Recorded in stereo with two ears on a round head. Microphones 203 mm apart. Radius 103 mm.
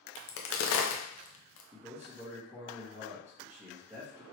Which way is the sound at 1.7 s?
10° right (ahead or behind).